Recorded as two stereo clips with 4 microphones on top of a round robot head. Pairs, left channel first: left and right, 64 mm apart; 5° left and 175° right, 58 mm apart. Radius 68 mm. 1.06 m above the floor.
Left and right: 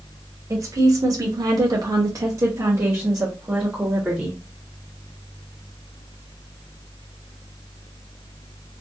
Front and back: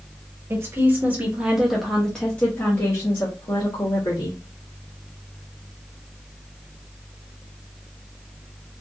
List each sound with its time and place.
0.5 s a woman speaking: 130° right, 1.0 m; by 4.4 s 20° right, 1.5 m